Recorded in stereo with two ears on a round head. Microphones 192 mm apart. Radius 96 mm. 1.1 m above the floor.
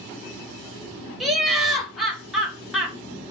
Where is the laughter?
Centre (ahead or behind), 1.2 m.